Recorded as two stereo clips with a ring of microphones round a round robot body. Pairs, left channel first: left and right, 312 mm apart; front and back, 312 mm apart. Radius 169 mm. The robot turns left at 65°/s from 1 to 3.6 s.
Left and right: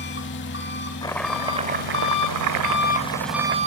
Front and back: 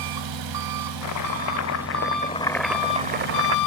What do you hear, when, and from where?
0.0 s an engine running: 150° left, 0.8 m; by 3.7 s 20° right, 0.8 m
1.0 s chopping: 15° left, 0.6 m; by 3.6 s 150° right, 0.6 m